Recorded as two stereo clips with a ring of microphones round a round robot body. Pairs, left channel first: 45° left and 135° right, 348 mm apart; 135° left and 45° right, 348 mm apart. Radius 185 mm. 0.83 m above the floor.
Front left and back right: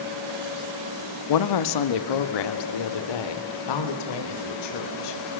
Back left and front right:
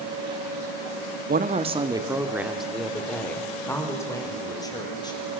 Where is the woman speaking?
20° left, 1.3 m; by 5.2 s 55° left, 4.5 m.